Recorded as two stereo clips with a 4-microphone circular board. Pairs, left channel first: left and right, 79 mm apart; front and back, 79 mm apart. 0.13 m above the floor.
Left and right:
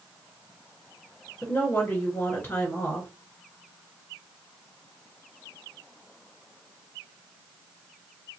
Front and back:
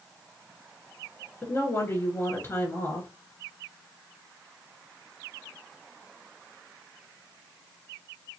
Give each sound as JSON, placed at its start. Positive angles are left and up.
{"t": 1.4, "sound": "a woman speaking", "azimuth_deg": 40, "distance_m": 2.0}